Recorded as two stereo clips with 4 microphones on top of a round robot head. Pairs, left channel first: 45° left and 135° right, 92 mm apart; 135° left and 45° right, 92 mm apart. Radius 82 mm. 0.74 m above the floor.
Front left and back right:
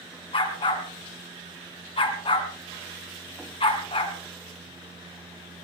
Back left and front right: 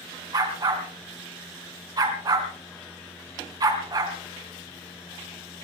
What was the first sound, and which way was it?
A dog barking, 10° left.